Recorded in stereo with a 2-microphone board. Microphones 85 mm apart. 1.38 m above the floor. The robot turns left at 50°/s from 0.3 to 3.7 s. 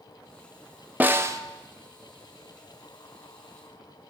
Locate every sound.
1.0 s a snare drum: 20° right (ahead or behind), 0.5 m; by 1.4 s 40° right (ahead or behind), 0.5 m